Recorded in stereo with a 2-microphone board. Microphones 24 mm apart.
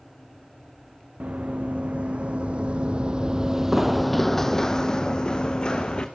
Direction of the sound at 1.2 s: 65° right (ahead or behind).